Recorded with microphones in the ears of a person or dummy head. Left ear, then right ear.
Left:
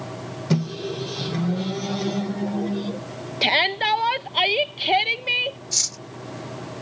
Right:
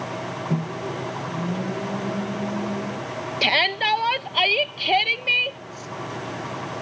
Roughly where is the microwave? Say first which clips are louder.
Left 1 dB; left.